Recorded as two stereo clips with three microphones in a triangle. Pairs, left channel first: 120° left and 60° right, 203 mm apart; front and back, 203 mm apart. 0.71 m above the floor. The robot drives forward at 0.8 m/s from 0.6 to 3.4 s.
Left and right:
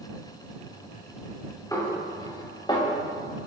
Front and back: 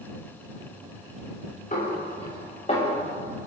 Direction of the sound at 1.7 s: 45° left.